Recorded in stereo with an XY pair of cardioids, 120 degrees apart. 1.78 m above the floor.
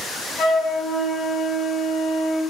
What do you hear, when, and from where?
0.4 s a flute: 45° left, 1.7 m